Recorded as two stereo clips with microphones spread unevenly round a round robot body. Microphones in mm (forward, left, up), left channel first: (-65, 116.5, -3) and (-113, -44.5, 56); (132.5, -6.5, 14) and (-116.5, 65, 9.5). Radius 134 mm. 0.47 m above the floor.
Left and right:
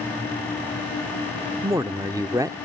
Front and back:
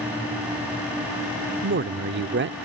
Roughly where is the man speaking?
Behind.